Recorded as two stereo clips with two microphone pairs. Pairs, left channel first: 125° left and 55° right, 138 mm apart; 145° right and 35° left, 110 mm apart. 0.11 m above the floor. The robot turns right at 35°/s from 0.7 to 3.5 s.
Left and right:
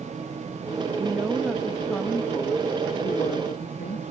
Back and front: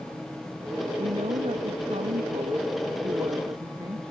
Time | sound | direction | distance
1.0 | a woman speaking | 5° left | ?